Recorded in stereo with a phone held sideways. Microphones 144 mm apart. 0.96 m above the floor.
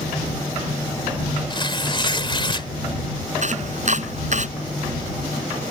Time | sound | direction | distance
1.5 | tearing paper | 35° left (ahead or behind) | ?
3.4 | chopping | 55° right (ahead or behind) | ?